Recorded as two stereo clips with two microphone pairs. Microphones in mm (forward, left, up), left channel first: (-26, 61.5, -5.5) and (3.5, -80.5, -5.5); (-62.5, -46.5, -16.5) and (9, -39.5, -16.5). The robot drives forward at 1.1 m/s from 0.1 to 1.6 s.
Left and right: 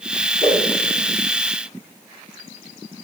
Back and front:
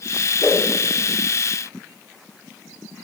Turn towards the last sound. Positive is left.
turn(degrees=175)